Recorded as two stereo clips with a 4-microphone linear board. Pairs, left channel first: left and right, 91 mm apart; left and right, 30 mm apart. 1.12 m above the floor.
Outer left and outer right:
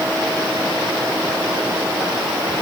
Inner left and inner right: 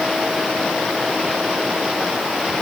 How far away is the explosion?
No explosion in this recording.